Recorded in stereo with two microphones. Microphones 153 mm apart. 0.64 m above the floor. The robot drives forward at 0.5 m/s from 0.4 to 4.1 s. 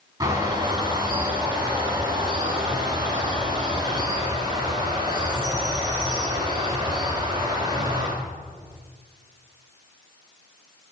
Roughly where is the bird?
Centre.